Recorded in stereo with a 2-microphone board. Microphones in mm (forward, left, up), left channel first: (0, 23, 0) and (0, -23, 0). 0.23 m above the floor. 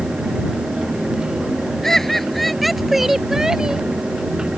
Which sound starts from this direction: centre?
Laughter, at 1.8 s.